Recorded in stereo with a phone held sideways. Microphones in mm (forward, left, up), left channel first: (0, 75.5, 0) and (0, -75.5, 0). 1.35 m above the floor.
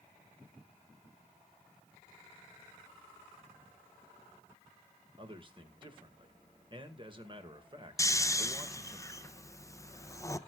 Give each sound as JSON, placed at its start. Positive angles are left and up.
{"t": 5.2, "sound": "a man speaking", "side_deg": -35, "distance_m": 1.9}
{"t": 8.0, "sound": "snoring", "side_deg": 20, "distance_m": 0.5}